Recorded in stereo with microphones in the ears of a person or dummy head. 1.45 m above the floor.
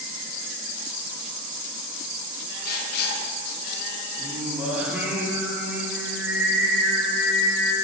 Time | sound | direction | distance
2.6 | writing | 65° left (ahead or behind) | 1.2 m
4.2 | singing | centre (ahead or behind) | 2 m